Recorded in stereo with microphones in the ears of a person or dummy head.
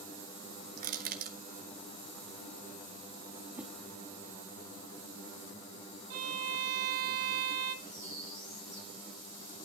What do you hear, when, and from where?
0.8 s crushing: 45° right (ahead or behind), 0.9 m
3.5 s a whoosh: 10° right (ahead or behind), 1.2 m
6.1 s a violin: 50° right (ahead or behind), 1.9 m
7.8 s a bird: 20° left (ahead or behind), 3.5 m